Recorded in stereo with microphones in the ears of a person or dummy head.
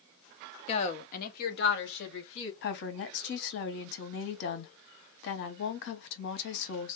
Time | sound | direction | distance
0.7 | a woman speaking | 30° left (ahead or behind) | 0.7 m
2.6 | a woman speaking | 60° left (ahead or behind) | 0.9 m